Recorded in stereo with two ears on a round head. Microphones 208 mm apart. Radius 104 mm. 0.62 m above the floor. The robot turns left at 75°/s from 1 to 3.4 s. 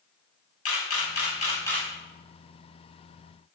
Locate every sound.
0.7 s a camera shutter: 60° left (ahead or behind), 5.5 m; by 1.9 s 5° right (ahead or behind), 5.5 m